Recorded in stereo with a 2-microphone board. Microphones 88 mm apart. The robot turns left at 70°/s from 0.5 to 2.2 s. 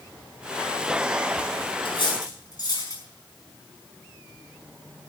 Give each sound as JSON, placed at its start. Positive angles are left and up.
{"t": 1.9, "sound": "cutlery clinking", "side_deg": 75, "distance_m": 5.0}